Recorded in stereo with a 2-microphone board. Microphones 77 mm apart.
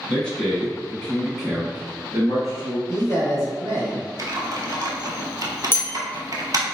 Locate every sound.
0.1 s a man speaking: 15° left (ahead or behind), 1.2 m; by 2.8 s 10° right (ahead or behind), 1.5 m
2.9 s a man speaking: 35° left (ahead or behind), 1.4 m
4.2 s typing on a keyboard: 50° right (ahead or behind), 0.8 m
5.7 s a bell: 30° left (ahead or behind), 0.6 m